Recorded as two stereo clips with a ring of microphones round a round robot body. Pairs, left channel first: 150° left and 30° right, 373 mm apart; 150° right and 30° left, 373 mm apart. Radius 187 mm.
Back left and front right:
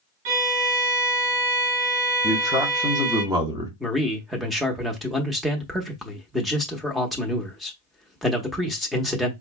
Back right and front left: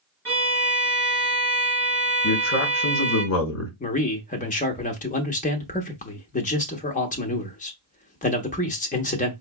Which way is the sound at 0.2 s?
65° right.